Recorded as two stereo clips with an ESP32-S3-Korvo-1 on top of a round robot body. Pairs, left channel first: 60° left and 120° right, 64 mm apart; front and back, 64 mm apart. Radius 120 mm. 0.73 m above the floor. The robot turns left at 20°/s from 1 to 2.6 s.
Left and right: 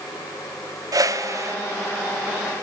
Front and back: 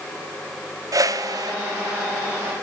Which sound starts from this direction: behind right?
A whoosh, at 0.9 s.